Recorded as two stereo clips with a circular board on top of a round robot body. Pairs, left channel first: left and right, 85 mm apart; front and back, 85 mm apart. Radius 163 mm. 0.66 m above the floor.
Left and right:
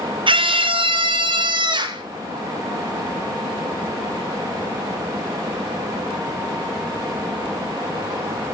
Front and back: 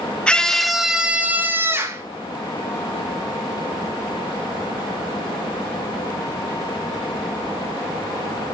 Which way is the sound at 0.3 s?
80° right.